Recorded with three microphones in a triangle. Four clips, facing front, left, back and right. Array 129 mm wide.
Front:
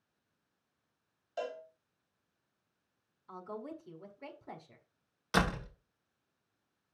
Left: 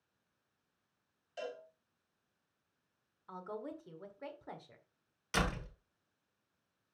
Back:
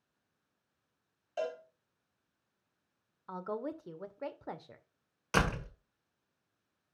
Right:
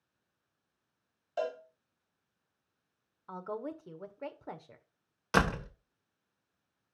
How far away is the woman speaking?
About 1.2 m.